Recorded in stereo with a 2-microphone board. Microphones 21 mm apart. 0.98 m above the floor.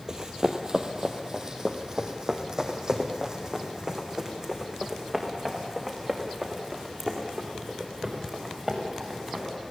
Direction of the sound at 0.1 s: 30° right (ahead or behind).